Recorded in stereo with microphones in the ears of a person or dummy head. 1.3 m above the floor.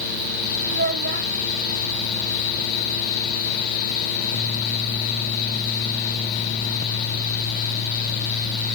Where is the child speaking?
45° right (ahead or behind).